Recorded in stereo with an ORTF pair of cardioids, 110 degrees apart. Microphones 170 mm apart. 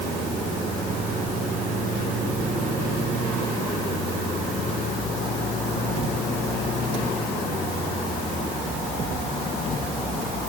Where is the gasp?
I don't hear a gasp.